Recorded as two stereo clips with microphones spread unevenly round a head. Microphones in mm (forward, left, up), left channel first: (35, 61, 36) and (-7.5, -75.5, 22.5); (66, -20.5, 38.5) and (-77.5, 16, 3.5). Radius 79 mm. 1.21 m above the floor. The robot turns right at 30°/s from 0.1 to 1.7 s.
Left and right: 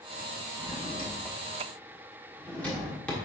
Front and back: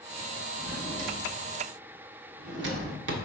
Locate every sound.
0.6 s a drawer: 120° left, 1.3 m; by 3.1 s 150° left, 1.3 m